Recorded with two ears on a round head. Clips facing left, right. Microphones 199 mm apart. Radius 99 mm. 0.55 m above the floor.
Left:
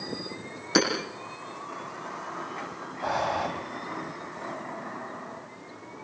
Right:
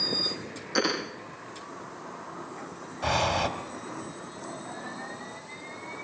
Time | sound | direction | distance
0.8 | hammering | 75° left (ahead or behind) | 9.5 m
3.0 | breathing | 45° right (ahead or behind) | 2.5 m